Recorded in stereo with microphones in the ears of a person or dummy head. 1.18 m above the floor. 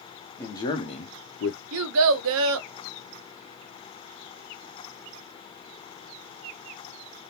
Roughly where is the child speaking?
Right.